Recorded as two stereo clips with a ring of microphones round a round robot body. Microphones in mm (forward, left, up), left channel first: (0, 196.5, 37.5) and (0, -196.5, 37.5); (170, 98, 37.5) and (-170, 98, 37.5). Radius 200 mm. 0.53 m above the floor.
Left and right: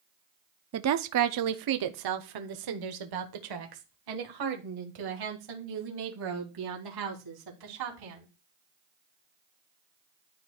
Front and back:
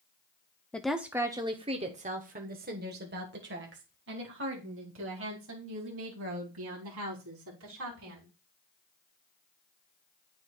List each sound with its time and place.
0.7 s a woman speaking: 85° right, 0.7 m; by 8.3 s 125° right, 4 m